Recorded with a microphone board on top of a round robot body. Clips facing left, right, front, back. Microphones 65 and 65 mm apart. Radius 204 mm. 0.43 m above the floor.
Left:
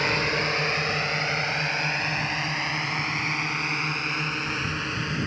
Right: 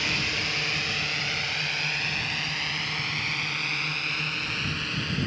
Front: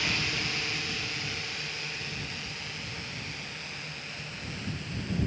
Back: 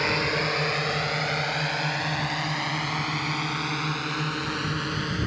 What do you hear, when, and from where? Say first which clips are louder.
0.0 s a drone: left 5 dB, back 7 dB; 140° left; by 5.3 s 160° left